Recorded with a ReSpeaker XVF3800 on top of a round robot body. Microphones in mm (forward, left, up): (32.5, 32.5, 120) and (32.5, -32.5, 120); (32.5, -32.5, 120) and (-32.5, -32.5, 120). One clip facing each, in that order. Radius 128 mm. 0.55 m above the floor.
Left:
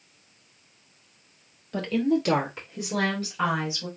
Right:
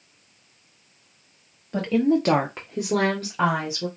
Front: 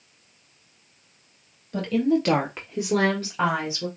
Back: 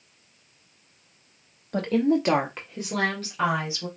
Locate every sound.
1.7 s a woman speaking: 165° right, 1.2 m; by 3.9 s 50° right, 2.5 m